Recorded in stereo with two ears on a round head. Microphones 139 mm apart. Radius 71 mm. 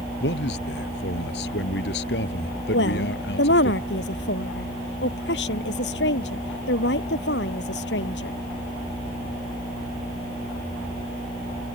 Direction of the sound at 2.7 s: 75° left (ahead or behind).